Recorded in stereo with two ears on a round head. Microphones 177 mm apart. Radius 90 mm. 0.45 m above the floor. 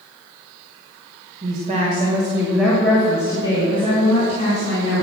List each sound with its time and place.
1.4 s a woman speaking: 45° right (ahead or behind), 1.9 m; by 5.0 s 35° left (ahead or behind), 4.5 m